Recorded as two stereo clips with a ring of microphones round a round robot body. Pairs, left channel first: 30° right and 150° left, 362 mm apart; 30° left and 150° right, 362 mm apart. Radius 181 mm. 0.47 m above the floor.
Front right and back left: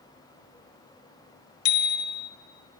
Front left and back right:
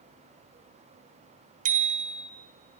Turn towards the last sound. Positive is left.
turn(degrees=-80)